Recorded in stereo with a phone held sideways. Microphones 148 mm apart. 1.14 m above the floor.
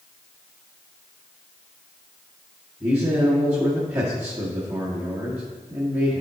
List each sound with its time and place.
2.8 s a man speaking: 15° right (ahead or behind), 2.0 m